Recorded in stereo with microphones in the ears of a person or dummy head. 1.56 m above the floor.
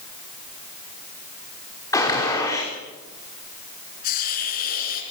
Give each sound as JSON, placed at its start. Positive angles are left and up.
{"t": 1.9, "sound": "a gunshot", "side_deg": 25, "distance_m": 5.5}
{"t": 4.0, "sound": "a hiss", "side_deg": 55, "distance_m": 3.5}